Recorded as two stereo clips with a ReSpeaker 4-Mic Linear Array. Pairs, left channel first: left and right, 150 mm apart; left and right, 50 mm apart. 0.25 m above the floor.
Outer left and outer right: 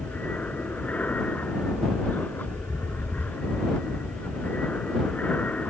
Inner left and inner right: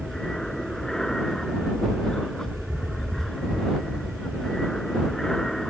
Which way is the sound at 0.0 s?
10° left (ahead or behind).